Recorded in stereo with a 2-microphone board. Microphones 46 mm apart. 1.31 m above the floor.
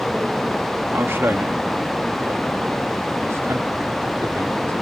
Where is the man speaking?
65° right (ahead or behind); by 4.7 s 80° right.